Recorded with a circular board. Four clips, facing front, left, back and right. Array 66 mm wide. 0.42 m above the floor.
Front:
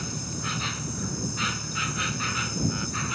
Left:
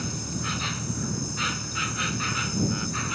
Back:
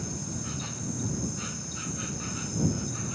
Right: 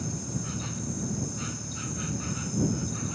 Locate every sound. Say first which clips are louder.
0.0 s an insect: left 3 dB, front 3 dB; 45° left